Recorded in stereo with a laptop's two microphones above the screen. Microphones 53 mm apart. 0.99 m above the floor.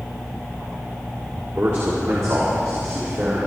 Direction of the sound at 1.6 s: 65° right (ahead or behind).